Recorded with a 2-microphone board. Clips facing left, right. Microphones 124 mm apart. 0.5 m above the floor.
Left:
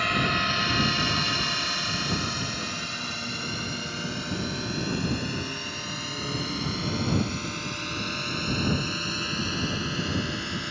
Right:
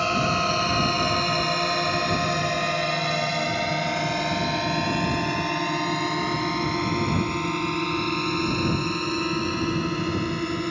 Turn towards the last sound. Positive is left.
turn(degrees=-45)  # may be behind; listen again after turning